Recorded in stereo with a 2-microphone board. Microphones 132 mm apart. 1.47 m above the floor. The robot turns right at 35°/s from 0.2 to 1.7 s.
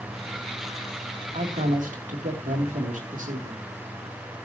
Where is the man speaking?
70° right (ahead or behind), 3 m; by 3.7 s 80° right, 3 m.